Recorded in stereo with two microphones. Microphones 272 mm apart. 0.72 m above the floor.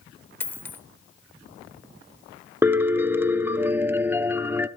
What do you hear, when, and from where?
0.4 s a dropped coin: 5° left (ahead or behind), 0.9 m
2.6 s a piano: 10° right (ahead or behind), 0.6 m